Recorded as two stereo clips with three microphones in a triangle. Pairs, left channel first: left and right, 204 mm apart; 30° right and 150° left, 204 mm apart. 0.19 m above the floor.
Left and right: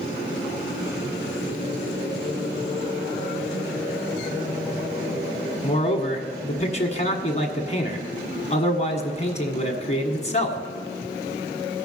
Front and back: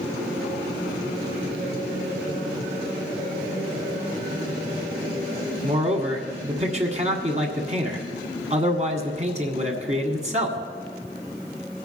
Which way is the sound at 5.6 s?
120° left.